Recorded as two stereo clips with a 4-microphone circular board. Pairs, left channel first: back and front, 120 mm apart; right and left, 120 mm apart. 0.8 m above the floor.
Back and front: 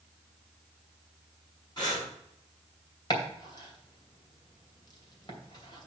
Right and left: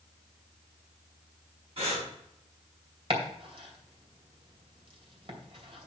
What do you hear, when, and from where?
1.8 s breathing: 125° left, 6 m
3.1 s chopping: 130° left, 2.5 m